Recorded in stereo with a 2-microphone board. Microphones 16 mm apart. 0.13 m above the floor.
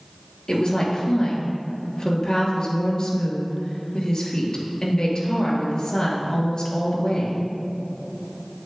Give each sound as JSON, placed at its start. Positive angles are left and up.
{"t": 0.5, "sound": "a woman speaking", "side_deg": 55, "distance_m": 2.5}